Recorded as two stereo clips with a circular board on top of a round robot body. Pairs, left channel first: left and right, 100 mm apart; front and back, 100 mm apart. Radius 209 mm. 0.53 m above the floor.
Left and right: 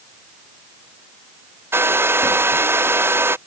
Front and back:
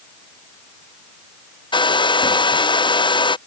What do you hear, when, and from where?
1.7 s a hair dryer: 25° right